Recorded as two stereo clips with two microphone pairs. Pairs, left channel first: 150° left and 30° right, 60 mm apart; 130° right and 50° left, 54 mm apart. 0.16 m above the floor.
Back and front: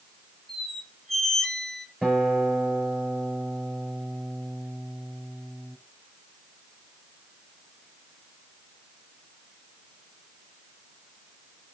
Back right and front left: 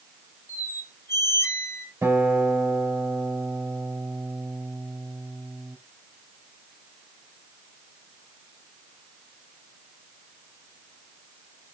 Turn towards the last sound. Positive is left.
turn(degrees=50)